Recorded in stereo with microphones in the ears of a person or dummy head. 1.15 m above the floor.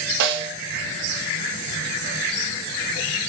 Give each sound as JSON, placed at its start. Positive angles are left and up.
{"t": 0.2, "sound": "a snare drum", "side_deg": -75, "distance_m": 0.6}